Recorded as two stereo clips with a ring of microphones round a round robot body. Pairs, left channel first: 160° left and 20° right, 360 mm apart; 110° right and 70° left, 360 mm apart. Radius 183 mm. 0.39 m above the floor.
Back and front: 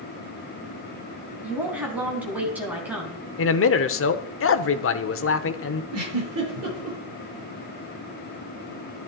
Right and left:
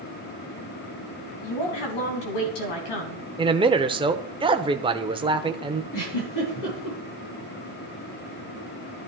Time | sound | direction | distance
1.4 | a woman speaking | 110° right | 4 m
3.4 | a man speaking | 135° left | 0.9 m
5.9 | a giggle | 75° right | 8 m